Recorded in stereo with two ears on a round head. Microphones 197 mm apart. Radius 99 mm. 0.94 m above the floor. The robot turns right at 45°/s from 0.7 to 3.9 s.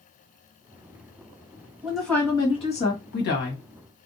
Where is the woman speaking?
5° right, 1.6 m; by 3.6 s 75° left, 1.6 m.